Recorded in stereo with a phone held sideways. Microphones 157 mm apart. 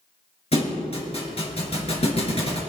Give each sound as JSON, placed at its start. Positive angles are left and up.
{"t": 0.5, "sound": "a thud", "side_deg": 40, "distance_m": 3.0}